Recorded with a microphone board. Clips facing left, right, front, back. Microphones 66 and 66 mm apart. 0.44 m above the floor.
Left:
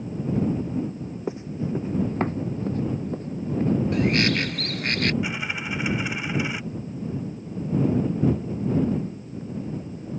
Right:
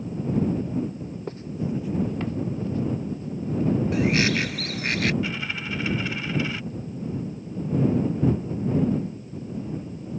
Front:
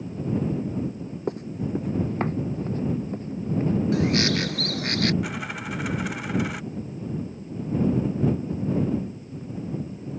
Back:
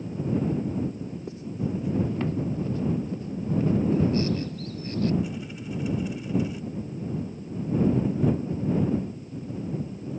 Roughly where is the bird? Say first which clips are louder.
Even, front 1 dB; ahead.